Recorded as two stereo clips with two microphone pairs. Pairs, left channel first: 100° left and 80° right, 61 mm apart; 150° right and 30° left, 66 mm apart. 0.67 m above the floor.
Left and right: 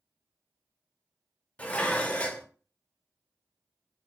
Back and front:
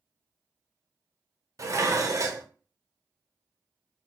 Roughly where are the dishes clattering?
Ahead left.